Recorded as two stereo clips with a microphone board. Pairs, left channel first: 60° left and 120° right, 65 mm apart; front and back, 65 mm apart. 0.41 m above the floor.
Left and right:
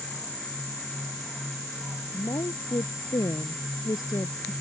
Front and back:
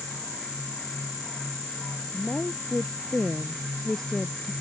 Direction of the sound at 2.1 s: 70° left.